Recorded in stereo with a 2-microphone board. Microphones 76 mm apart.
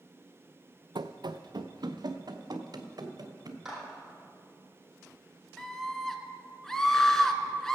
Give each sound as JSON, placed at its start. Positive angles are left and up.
{"t": 0.9, "sound": "running footsteps", "side_deg": -85, "distance_m": 0.6}
{"t": 3.6, "sound": "a clap", "side_deg": -10, "distance_m": 4.5}
{"t": 5.6, "sound": "a scream", "side_deg": 5, "distance_m": 1.1}